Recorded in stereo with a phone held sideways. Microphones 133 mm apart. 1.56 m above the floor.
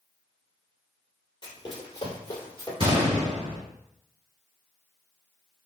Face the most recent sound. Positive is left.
turn(degrees=-40)  # may be behind; listen again after turning